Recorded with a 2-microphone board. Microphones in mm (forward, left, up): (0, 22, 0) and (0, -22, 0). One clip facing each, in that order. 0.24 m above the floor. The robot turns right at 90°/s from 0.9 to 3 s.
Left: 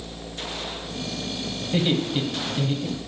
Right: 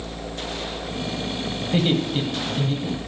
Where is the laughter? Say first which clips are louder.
Right 2 dB; 20° right (ahead or behind), 1.1 m; by 3.0 s 20° left (ahead or behind), 1.1 m.